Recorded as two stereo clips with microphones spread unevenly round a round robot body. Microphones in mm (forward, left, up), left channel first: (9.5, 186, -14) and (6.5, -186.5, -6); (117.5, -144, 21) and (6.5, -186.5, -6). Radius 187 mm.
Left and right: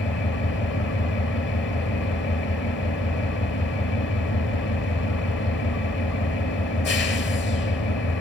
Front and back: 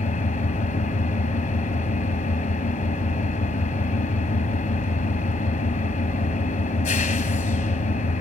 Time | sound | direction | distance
0.0 | an engine running | 30° left | 3.5 m